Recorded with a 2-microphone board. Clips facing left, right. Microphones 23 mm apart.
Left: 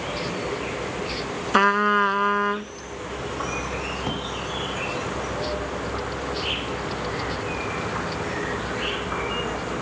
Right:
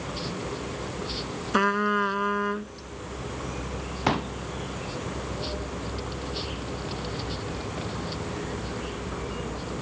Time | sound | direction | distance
0.0 | an insect | 60° left (ahead or behind) | ?
1.5 | a trumpet | 25° left (ahead or behind) | ?
4.1 | a pop | 50° right (ahead or behind) | ?